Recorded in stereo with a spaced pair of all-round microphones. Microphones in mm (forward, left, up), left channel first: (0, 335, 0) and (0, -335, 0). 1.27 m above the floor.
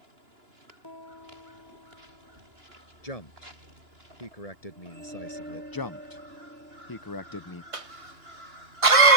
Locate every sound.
0.8 s a piano: 35° left (ahead or behind)
3.0 s a man speaking: 65° left (ahead or behind)
5.7 s a man speaking: 35° left (ahead or behind)
7.7 s a cough: 55° right (ahead or behind)